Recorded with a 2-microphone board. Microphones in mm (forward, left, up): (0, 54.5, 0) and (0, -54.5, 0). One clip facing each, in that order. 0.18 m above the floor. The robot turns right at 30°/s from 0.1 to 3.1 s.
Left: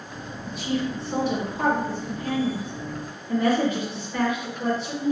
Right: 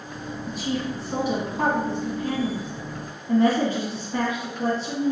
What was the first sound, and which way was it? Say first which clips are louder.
A woman speaking: left 1 dB; straight behind.